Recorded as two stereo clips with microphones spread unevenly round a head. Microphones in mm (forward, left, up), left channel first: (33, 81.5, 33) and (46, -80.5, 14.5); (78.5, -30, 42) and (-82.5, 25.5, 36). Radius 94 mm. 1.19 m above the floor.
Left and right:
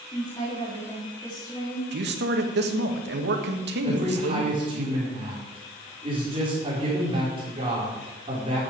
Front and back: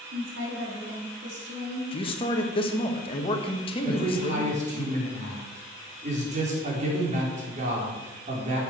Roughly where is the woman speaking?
Behind.